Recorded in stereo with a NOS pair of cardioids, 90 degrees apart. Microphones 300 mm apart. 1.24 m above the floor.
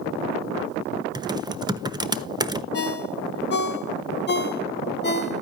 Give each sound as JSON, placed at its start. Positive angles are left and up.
{"t": 1.1, "sound": "typing on a keyboard", "azimuth_deg": -15, "distance_m": 1.0}
{"t": 2.7, "sound": "a ringtone", "azimuth_deg": 35, "distance_m": 1.4}